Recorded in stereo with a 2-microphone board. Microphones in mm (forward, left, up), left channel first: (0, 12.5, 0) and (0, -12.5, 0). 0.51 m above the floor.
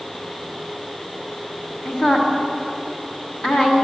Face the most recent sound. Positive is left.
turn(degrees=45)  # may be behind; listen again after turning